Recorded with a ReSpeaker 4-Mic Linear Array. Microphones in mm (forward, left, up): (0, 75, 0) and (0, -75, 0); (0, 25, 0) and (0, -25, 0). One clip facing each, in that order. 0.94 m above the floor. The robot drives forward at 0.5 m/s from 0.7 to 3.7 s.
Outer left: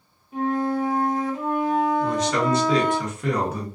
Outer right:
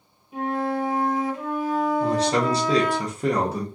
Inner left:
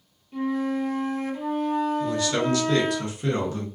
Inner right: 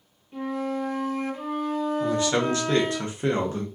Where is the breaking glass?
I don't hear breaking glass.